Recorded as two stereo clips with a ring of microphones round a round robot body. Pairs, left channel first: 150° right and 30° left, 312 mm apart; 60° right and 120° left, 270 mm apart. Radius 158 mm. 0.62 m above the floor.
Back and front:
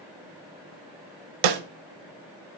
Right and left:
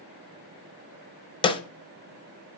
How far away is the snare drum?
About 0.7 m.